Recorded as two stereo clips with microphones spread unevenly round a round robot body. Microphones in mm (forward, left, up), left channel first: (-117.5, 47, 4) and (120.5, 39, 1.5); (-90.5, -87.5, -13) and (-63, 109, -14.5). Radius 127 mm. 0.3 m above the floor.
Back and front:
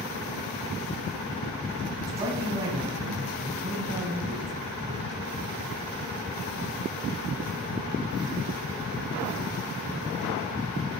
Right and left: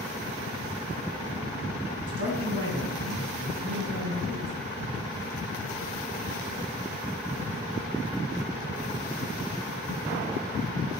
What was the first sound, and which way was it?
A man speaking, 70° left.